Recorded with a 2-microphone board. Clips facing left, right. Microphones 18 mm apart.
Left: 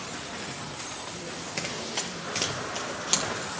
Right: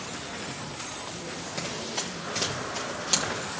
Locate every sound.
1.6 s running footsteps: 30° left (ahead or behind), 1.6 m; by 3.4 s 10° left (ahead or behind), 2 m